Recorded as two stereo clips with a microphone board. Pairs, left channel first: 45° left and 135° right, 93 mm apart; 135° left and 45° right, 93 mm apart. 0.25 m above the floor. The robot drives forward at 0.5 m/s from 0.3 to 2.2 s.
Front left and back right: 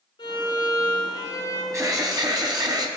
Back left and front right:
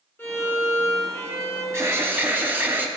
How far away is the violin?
About 2.5 m.